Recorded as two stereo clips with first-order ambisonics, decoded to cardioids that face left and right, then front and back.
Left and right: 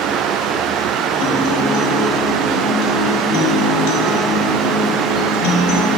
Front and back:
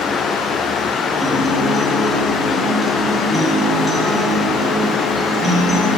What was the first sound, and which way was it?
A guitar, 95° left.